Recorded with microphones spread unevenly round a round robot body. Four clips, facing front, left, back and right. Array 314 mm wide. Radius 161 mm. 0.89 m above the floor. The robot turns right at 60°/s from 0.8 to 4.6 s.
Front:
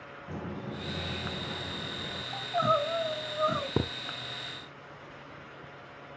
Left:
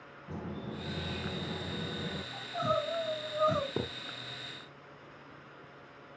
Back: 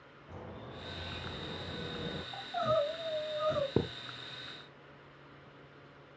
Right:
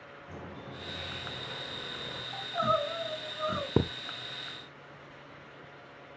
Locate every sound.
0.3 s a bird: 15° left, 4.5 m; by 2.2 s 105° left, 4.5 m
2.3 s crying: 20° right, 6.5 m; by 3.7 s 60° left, 6.5 m
3.8 s a thud: 70° right, 1.2 m; by 3.9 s 60° right, 1.2 m